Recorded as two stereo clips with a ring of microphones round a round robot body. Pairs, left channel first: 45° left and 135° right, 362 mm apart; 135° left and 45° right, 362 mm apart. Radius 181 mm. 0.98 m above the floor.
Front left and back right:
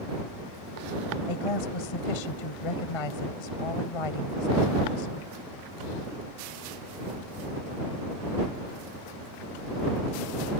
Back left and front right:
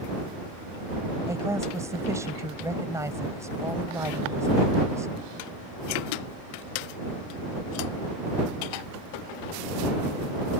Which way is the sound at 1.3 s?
35° left.